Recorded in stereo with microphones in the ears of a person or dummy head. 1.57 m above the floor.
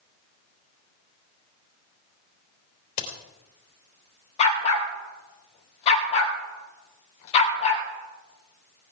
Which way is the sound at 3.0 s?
50° left (ahead or behind).